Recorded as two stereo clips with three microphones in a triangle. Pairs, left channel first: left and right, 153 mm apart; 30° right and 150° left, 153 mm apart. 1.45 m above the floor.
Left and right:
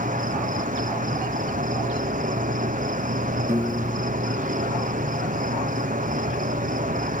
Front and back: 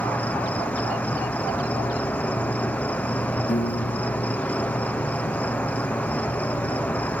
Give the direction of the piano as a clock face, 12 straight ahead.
1 o'clock.